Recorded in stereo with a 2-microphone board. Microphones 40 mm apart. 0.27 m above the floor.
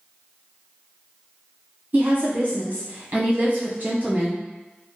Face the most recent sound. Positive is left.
turn(degrees=-50)  # may be behind; listen again after turning